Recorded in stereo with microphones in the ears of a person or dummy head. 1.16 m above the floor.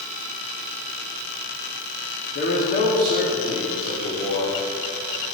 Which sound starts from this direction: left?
A man speaking, at 2.4 s.